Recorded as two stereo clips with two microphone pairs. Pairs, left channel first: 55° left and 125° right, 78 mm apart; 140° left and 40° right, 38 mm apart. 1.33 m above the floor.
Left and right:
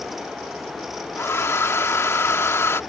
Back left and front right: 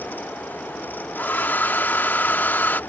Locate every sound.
1.2 s a hair dryer: 110° left